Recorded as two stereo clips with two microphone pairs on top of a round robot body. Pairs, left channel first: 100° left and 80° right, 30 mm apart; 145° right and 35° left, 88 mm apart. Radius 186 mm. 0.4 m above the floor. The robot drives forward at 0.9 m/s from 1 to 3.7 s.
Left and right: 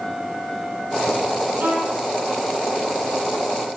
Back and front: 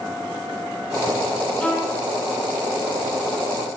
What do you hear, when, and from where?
1.6 s a violin: 70° right, 10 m